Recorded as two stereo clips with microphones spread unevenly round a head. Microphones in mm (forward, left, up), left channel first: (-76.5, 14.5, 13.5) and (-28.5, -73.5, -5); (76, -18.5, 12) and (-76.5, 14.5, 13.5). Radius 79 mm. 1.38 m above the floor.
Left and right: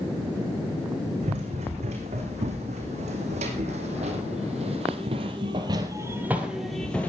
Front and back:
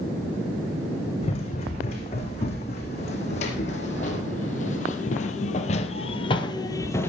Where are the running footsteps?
65° right, 5 m; by 7.1 s 60° left, 1.8 m.